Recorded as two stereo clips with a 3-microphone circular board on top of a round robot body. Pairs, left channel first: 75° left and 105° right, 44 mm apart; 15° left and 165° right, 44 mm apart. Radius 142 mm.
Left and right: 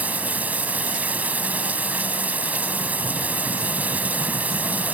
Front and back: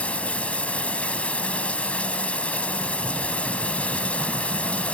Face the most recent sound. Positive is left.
turn(degrees=-50)